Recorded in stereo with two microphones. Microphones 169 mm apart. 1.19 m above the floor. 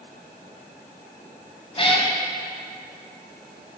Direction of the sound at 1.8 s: 35° left (ahead or behind).